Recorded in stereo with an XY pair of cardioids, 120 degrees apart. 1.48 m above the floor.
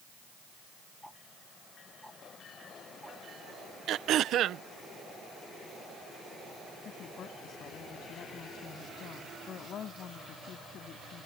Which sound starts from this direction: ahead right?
Throat clearing, at 3.9 s.